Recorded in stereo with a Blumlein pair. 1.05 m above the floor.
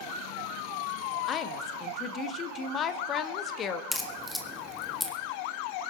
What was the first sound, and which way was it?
A woman speaking, 25° left.